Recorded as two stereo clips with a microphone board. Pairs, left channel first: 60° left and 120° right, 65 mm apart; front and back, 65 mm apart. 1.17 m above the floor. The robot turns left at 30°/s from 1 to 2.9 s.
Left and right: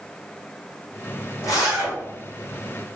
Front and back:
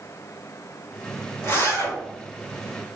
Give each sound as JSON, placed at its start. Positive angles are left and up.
{"t": 1.4, "sound": "a zipper", "azimuth_deg": 50, "distance_m": 1.9}